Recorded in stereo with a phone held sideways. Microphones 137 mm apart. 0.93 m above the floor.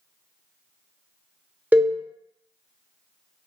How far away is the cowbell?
About 0.8 m.